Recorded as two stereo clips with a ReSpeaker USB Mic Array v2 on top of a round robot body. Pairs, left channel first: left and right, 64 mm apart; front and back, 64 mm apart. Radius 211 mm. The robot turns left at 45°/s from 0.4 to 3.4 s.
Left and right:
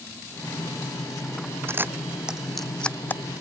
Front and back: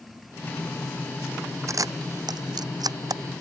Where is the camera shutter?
140° right; by 3.2 s 150° left.